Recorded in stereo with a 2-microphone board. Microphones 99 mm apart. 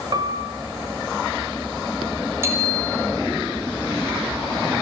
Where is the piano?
45° right (ahead or behind), 3 m.